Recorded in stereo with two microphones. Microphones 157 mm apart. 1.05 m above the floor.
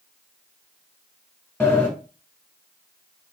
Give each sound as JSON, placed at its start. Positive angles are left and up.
{"t": 1.6, "sound": "a sliding door", "side_deg": 10, "distance_m": 1.4}